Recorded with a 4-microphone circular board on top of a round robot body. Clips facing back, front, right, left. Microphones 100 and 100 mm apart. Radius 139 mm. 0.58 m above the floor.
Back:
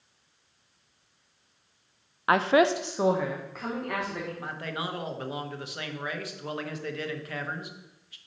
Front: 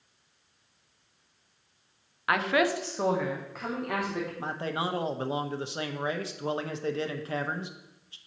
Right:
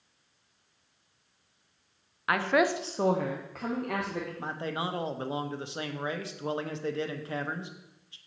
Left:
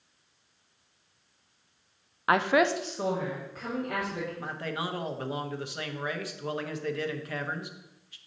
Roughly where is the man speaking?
Ahead right.